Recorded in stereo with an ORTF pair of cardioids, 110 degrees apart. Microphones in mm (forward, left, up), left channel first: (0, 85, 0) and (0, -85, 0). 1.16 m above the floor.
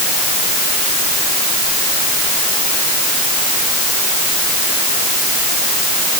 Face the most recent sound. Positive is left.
No sound to turn to.